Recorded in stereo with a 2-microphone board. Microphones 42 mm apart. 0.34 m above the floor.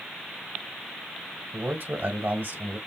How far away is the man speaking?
About 2 m.